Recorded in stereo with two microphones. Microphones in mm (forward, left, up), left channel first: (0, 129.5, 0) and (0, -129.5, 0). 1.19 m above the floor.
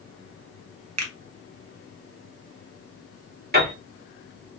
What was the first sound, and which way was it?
A finger snap, 80° right.